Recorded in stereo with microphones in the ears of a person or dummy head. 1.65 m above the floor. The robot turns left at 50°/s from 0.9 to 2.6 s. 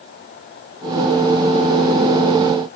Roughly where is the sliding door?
I don't hear a sliding door.